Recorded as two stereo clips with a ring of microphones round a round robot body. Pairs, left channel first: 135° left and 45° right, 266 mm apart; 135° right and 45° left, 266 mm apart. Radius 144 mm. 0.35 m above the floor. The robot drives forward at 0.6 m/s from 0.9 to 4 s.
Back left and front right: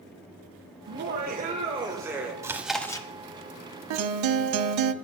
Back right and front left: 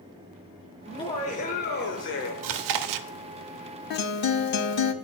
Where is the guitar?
75° right, 0.5 m; by 4.9 s 85° right, 0.5 m.